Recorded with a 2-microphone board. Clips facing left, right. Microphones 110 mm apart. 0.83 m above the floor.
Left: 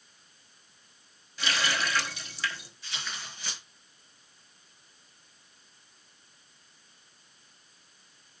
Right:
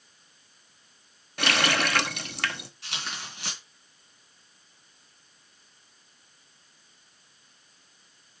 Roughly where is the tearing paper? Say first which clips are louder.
Right 2 dB; right.